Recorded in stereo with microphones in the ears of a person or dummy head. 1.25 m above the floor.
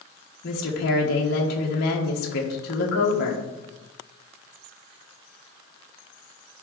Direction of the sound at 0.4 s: 50° left (ahead or behind).